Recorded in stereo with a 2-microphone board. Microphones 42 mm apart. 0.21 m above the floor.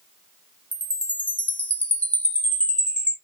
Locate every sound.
0.7 s a chime: 40° left (ahead or behind), 0.8 m